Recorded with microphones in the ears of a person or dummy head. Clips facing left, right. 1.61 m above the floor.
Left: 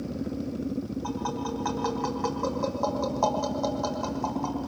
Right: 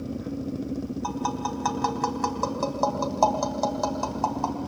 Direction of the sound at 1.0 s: 65° right (ahead or behind).